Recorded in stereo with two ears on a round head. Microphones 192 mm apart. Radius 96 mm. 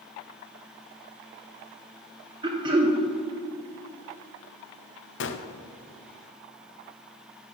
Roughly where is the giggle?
I don't hear a giggle.